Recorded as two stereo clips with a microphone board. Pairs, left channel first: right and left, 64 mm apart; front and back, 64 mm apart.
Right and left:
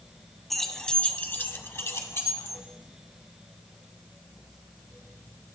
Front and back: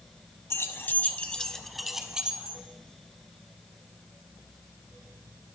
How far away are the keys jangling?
About 1.0 m.